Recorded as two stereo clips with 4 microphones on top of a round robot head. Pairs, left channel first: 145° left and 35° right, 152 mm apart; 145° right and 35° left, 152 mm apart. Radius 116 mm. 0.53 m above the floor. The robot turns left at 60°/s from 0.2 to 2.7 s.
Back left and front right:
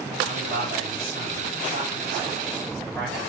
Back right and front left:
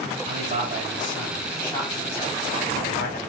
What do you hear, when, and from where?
0.2 s a man speaking: 15° left, 2 m; by 3.2 s 130° right, 2 m